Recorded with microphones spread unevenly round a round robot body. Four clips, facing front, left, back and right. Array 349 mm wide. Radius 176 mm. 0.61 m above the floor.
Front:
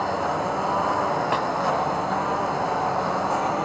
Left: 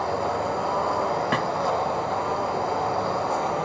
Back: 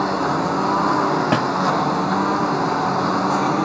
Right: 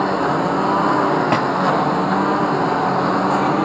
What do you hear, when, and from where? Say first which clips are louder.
0.0 s a lawn mower: right 7 dB, back 4 dB; 125° right
1.3 s a snare drum: right 7 dB, back 5 dB; 155° right